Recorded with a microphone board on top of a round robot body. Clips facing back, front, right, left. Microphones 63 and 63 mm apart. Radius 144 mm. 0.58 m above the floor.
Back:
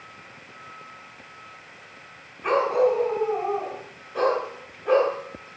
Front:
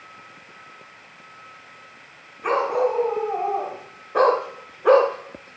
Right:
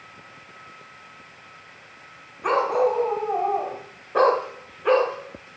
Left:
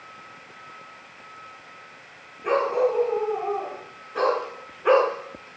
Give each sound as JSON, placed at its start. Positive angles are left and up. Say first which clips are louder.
{"t": 2.4, "sound": "a dog barking", "louder": "back 1 dB, right 1 dB", "azimuth_deg": -75, "distance_m": 1.7}